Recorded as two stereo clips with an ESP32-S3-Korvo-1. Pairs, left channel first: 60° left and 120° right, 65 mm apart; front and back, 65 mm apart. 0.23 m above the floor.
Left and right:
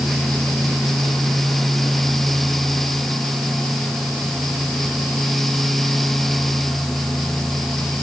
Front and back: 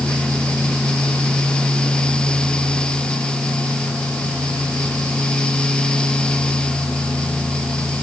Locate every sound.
Only background noise.